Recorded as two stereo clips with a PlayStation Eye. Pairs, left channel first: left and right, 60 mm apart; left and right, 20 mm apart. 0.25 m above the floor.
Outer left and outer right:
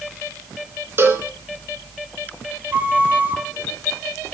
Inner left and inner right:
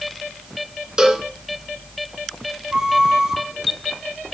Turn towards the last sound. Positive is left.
turn(degrees=-30)  # may be behind; listen again after turning